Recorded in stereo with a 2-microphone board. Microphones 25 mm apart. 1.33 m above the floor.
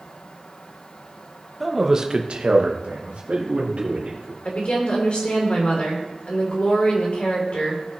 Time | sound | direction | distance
1.6 | a man speaking | 5° right (ahead or behind) | 1.2 m
4.5 | a woman speaking | 55° left (ahead or behind) | 3.5 m